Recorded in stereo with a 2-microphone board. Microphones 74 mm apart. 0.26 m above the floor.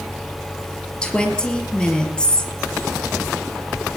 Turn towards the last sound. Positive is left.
turn(degrees=10)  # may be behind; listen again after turning